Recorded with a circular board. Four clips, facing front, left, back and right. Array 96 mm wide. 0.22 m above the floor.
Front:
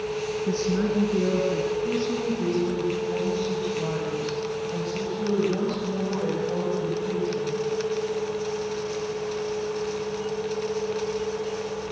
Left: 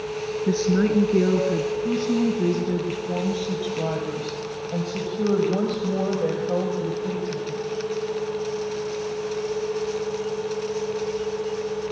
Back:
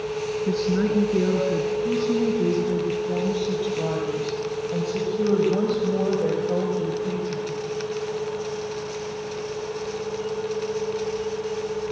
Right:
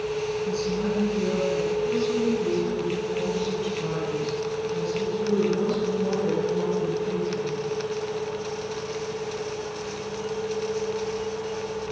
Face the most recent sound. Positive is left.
turn(degrees=125)